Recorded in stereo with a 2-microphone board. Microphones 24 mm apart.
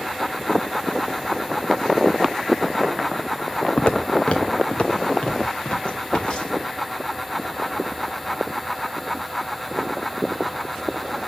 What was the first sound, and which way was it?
Footsteps, 45° left (ahead or behind).